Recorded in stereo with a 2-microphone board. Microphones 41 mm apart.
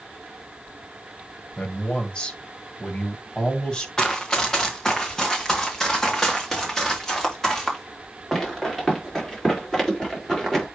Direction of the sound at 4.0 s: 15° left (ahead or behind).